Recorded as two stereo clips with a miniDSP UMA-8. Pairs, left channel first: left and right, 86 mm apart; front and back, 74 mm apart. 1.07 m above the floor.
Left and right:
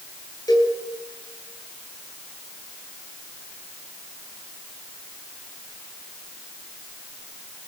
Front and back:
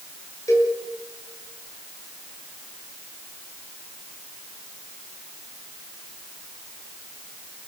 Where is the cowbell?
45° left, 8 m.